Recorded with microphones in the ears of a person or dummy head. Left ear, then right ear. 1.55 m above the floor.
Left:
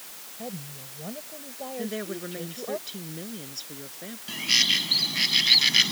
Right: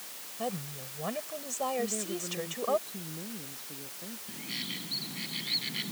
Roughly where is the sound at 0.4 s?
Right.